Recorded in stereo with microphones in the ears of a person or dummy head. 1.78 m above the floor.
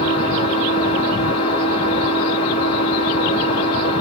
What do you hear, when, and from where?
0.0 s an engine running: 30° left (ahead or behind), 5 m